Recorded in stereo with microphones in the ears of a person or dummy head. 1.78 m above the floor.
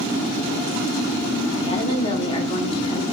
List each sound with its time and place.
1.6 s a woman speaking: 30° left (ahead or behind), 1.6 m